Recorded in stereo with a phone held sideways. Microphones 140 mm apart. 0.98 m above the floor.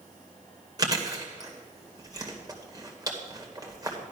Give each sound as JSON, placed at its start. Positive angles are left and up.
{"t": 0.8, "sound": "chewing", "side_deg": -25, "distance_m": 2.0}